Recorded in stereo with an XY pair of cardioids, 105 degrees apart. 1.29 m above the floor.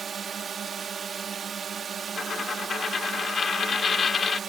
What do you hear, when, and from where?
0.0 s a drone: 50° right
2.2 s a dropped coin: 35° left